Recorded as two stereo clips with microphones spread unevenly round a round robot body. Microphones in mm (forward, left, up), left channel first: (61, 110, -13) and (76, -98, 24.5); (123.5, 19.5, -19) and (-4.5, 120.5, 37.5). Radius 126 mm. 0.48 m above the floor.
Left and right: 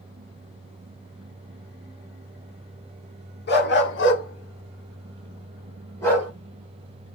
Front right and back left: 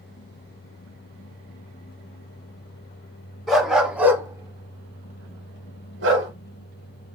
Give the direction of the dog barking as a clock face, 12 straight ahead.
10 o'clock.